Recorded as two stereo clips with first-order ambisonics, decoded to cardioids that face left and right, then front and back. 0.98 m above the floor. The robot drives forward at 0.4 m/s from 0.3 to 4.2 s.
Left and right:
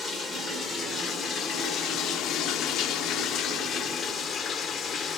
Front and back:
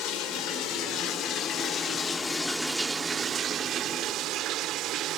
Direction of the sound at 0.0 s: 25° left.